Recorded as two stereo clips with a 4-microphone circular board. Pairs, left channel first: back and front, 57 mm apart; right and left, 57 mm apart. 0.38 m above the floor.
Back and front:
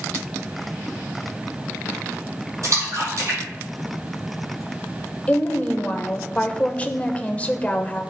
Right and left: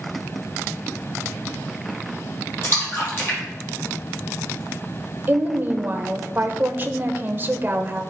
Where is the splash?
40° right, 4.5 m.